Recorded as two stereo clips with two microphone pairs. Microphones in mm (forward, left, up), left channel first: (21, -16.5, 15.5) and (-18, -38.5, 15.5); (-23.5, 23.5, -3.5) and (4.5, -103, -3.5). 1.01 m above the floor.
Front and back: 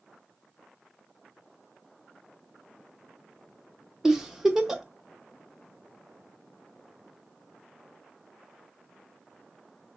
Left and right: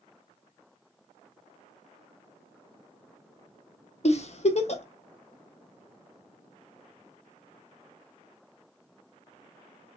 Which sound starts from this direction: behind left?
A giggle, at 4.0 s.